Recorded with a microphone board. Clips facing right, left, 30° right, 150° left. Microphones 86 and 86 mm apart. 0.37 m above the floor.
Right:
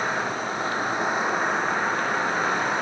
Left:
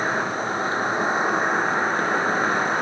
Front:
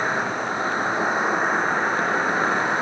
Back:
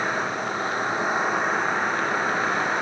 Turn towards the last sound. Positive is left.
turn(degrees=35)